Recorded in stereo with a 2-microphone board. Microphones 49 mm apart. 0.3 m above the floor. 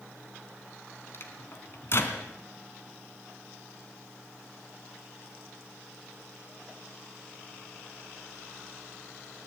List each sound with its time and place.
1.1 s a microwave: 50° left (ahead or behind), 3 m